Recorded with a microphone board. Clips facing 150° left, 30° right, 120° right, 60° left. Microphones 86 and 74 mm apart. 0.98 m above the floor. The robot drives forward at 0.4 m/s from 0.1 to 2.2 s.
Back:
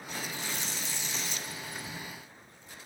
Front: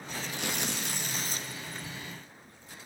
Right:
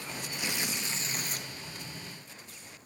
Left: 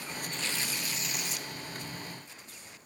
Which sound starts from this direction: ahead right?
Tearing paper, at 0.3 s.